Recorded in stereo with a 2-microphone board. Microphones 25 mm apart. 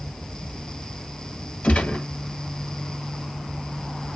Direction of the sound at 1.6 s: 55° left (ahead or behind).